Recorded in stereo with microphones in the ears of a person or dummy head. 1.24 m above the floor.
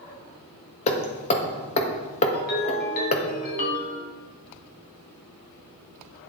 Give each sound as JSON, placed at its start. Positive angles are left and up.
{"t": 0.9, "sound": "hammering", "side_deg": 35, "distance_m": 1.4}
{"t": 2.3, "sound": "a ringtone", "side_deg": 50, "distance_m": 3.5}